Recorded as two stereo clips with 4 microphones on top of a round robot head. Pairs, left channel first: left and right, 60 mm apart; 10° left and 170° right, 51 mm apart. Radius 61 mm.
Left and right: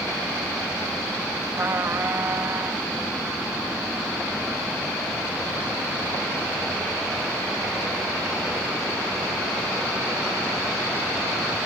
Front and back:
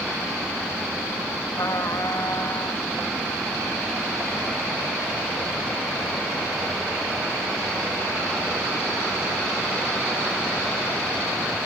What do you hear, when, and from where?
1.6 s a trumpet: 35° right